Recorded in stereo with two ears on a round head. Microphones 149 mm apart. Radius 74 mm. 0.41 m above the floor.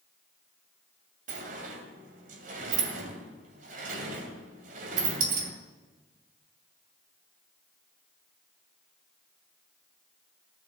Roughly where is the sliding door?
Right.